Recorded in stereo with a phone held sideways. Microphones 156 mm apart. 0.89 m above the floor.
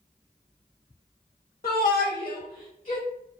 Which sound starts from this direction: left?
A shout, at 1.6 s.